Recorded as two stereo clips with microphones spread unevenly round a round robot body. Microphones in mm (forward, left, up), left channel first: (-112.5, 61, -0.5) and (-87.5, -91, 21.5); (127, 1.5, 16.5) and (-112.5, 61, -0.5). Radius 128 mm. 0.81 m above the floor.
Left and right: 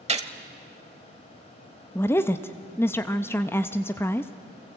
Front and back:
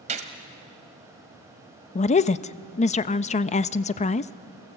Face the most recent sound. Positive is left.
turn(degrees=40)